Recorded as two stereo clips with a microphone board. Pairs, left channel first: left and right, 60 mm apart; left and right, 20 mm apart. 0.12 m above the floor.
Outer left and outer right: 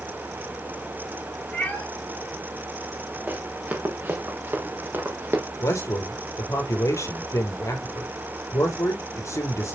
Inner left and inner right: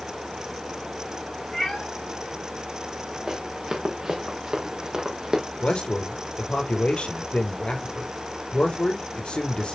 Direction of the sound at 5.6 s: 60° left (ahead or behind).